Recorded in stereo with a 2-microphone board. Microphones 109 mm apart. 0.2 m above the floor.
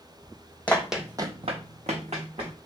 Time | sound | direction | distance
0.7 | running footsteps | 10° left (ahead or behind) | 0.7 m